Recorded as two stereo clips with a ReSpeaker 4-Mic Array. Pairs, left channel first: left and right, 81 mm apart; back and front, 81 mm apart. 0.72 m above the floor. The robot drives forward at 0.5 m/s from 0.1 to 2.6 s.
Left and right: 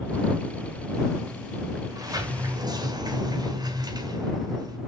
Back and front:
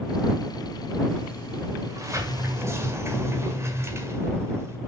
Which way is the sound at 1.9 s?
45° right.